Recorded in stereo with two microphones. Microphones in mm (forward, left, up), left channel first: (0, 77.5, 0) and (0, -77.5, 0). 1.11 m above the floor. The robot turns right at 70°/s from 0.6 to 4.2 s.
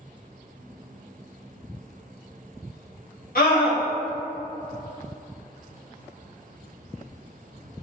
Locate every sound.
3.4 s a scream: 75° left, 1.6 m; by 3.8 s 110° left, 1.6 m